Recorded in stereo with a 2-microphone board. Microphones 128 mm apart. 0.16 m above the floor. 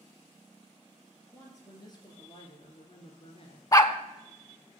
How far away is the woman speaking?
About 3 m.